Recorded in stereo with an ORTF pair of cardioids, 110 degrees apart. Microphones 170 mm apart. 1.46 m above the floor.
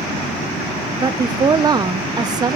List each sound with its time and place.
1.0 s a woman speaking: 25° right, 0.8 m